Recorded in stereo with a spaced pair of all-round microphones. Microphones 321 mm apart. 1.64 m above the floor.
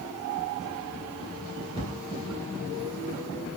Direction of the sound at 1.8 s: 15° right (ahead or behind).